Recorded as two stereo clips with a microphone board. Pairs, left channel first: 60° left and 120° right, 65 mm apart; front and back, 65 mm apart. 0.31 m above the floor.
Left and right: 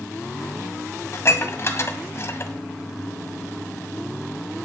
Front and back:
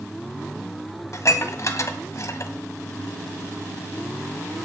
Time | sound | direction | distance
1.1 | dishes clattering | 25° left | 1.5 m